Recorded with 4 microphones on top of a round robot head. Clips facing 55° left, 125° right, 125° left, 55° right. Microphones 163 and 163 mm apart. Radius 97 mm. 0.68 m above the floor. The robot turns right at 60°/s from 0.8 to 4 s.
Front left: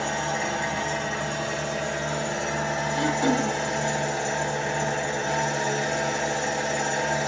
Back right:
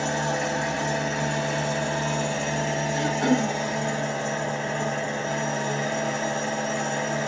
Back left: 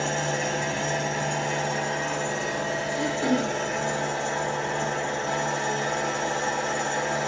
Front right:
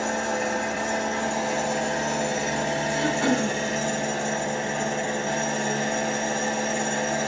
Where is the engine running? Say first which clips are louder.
Back right 2 dB, front right 1 dB; straight behind, 1.8 m; by 7.3 s 15° left, 1.8 m.